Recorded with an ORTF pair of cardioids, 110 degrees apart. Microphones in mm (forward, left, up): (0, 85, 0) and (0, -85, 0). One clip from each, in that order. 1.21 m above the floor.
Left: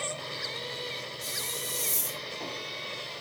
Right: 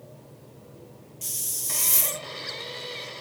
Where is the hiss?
40° right, 0.6 m.